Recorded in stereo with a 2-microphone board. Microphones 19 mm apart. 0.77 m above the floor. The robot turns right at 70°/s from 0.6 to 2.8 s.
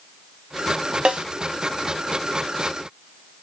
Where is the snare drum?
65° right (ahead or behind), 0.5 m; by 1.3 s 80° right, 0.5 m.